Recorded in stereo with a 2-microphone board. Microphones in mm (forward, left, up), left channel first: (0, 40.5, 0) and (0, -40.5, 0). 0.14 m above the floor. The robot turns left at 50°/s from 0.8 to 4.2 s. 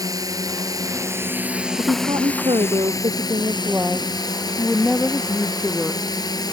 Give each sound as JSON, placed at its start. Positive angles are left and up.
{"t": 0.0, "sound": "a drone", "azimuth_deg": -125}
{"t": 1.8, "sound": "a woman speaking", "azimuth_deg": -60}